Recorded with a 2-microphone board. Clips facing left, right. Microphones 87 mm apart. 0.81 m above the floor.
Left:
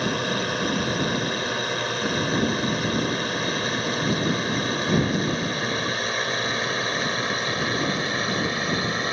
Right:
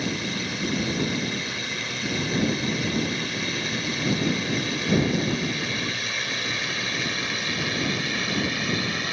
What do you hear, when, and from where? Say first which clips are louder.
0.0 s a drone: left 4 dB; 55° left (ahead or behind); by 9.1 s 35° left (ahead or behind)